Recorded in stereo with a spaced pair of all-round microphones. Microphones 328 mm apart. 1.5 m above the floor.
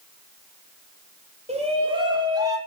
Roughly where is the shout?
Right.